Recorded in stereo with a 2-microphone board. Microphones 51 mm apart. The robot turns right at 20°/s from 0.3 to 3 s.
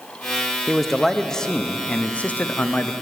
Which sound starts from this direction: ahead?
A man speaking, at 0.7 s.